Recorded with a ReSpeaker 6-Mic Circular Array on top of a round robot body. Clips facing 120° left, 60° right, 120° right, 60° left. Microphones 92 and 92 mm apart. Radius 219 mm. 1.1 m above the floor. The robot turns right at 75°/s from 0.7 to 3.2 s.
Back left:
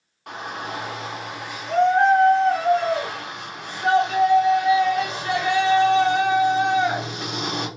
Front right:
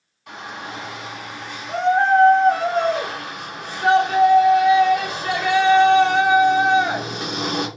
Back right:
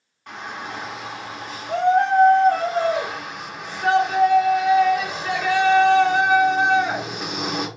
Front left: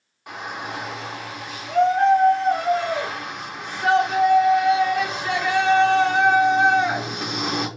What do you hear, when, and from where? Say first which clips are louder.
0.3 s a shout: back left 2 dB, front left 1 dB; 135° left, 1.4 m; by 7.7 s 35° right, 1.4 m